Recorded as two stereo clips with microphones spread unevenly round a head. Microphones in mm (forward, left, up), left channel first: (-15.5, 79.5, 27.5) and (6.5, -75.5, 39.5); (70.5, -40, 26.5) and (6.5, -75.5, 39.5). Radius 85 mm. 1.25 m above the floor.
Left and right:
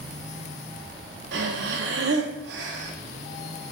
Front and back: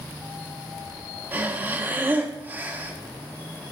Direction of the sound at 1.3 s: 90° right.